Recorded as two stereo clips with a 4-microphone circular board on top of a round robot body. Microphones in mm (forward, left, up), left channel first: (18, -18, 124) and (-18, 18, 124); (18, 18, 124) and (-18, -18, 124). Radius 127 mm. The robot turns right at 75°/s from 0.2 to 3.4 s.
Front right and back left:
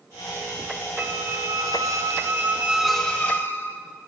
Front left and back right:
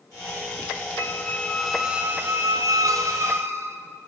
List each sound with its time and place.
1.0 s a squeak: 80° left, 1.9 m; by 3.8 s 95° right, 1.9 m